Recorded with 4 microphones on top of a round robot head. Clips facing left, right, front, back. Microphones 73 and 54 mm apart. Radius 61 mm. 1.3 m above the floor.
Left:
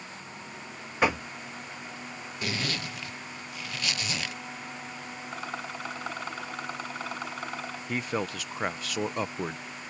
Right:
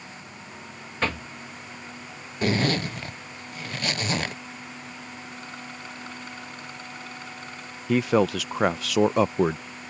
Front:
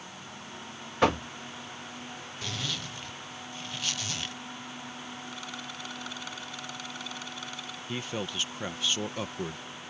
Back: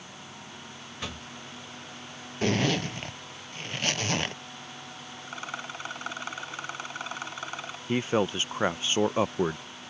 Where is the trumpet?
I don't hear a trumpet.